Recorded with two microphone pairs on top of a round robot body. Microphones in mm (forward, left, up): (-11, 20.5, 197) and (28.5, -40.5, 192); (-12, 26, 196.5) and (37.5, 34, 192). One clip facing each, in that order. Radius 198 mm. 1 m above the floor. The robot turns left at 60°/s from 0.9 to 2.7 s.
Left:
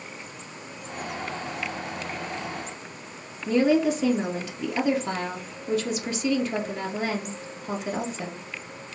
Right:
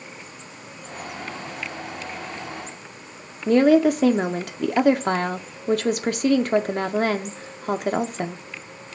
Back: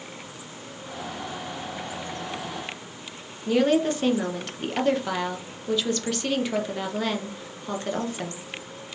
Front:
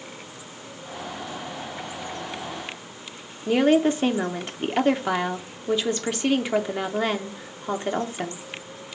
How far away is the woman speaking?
About 0.6 m.